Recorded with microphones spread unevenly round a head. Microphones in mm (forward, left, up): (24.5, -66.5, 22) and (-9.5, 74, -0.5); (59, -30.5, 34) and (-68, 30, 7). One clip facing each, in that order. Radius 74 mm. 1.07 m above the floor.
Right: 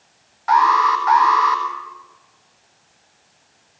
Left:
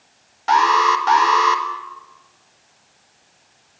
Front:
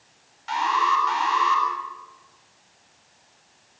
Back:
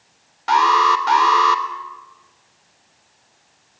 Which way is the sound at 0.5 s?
160° left.